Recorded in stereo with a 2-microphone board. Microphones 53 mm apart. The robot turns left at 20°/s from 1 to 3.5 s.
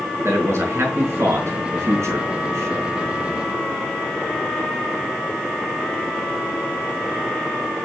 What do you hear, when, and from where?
0.2 s a man speaking: 60° right (ahead or behind), 4.5 m; by 3.0 s 65° right (ahead or behind), 4.5 m